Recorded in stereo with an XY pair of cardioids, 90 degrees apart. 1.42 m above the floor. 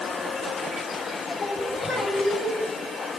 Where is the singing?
45° left, 5 m.